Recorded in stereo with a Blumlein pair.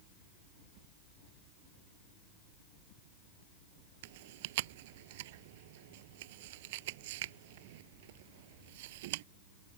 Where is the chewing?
50° right.